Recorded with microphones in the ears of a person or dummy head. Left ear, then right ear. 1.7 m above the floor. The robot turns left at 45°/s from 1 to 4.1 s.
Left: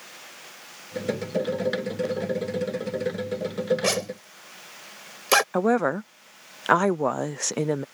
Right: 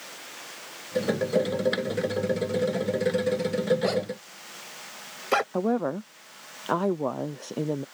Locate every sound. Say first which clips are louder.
3.8 s a zipper: left 1 dB; 65° left (ahead or behind); by 5.4 s 80° left
5.5 s a woman speaking: left 5 dB; 60° left (ahead or behind)